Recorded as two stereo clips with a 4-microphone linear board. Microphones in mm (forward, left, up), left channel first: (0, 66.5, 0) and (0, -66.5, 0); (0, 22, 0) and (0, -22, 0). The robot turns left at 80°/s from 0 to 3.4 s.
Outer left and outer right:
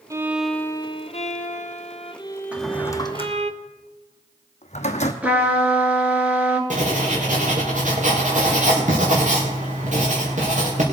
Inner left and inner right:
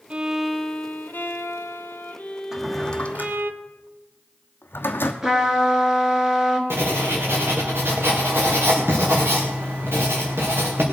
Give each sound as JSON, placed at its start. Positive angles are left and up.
{"t": 0.1, "sound": "a violin", "azimuth_deg": -155, "distance_m": 0.7}
{"t": 2.5, "sound": "a drawer", "side_deg": -10, "distance_m": 1.2}
{"t": 5.2, "sound": "a trumpet", "side_deg": -10, "distance_m": 1.6}
{"t": 6.7, "sound": "writing", "side_deg": -70, "distance_m": 3.5}